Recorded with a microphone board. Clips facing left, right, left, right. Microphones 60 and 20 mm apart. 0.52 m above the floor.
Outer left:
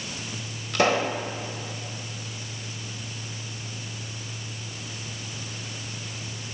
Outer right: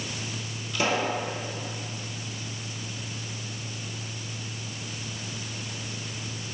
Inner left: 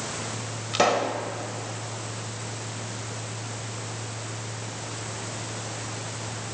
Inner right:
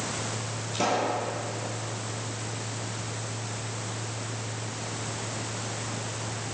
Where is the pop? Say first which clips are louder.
Outer left 4 dB, inner left 4 dB; 65° left (ahead or behind), 1.3 m.